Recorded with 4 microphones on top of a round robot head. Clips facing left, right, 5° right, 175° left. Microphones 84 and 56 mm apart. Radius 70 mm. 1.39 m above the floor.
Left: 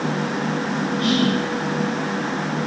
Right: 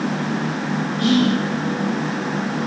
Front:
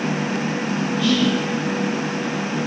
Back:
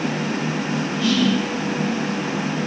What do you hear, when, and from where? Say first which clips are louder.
1.0 s whispering: right 4 dB, even; 70° right, 1.8 m